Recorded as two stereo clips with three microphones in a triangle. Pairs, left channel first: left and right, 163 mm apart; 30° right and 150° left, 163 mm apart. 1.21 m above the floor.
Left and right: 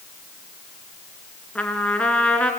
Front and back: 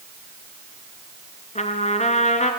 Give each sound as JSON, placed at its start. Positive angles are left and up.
{"t": 1.6, "sound": "a trumpet", "azimuth_deg": 10, "distance_m": 2.5}